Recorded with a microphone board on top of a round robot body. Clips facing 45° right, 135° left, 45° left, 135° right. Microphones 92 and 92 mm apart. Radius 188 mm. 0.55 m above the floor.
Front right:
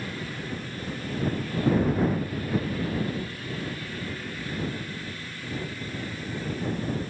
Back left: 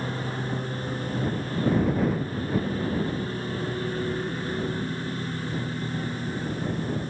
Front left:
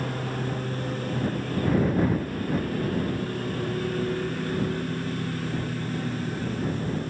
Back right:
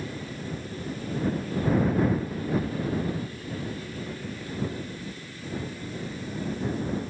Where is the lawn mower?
75° left.